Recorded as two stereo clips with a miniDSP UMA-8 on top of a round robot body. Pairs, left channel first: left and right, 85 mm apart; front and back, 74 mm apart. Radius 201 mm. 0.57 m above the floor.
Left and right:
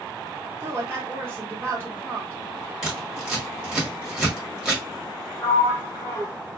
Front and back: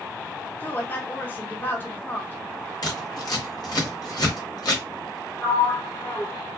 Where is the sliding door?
55° left, 1.6 m.